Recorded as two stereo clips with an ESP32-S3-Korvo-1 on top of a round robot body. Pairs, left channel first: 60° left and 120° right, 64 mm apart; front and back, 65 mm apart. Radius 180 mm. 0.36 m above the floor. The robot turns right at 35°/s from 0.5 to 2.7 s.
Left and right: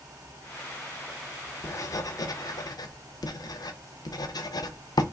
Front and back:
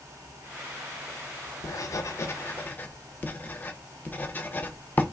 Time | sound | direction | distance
1.6 | writing | 20° left | 0.8 m